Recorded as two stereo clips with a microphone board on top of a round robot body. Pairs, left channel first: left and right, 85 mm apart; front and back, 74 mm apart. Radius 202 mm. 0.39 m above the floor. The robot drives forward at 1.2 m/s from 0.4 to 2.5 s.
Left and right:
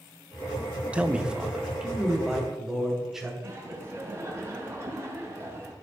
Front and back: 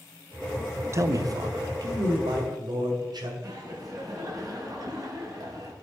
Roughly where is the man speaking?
Behind.